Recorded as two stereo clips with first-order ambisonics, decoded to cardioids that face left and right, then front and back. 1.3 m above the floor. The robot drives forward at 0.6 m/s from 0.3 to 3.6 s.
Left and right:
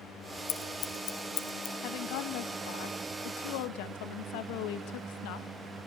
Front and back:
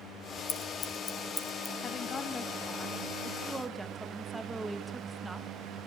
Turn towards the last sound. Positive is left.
turn(degrees=95)